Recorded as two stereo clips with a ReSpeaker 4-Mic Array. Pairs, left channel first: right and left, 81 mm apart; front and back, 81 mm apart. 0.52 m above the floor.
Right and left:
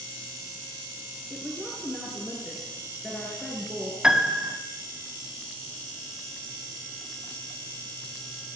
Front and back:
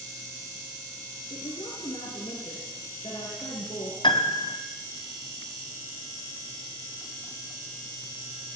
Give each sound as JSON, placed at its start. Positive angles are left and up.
{"t": 1.3, "sound": "a woman speaking", "azimuth_deg": -5, "distance_m": 7.5}
{"t": 4.0, "sound": "a piano", "azimuth_deg": 10, "distance_m": 2.5}